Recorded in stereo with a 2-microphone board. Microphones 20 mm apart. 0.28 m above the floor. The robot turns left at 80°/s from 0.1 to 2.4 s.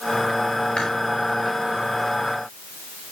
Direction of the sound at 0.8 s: 50° left (ahead or behind).